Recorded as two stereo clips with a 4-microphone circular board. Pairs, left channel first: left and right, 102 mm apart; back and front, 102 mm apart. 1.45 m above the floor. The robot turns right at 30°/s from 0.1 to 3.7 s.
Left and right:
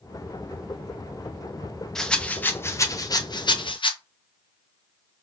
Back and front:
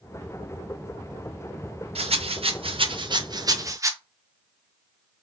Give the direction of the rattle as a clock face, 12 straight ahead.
12 o'clock.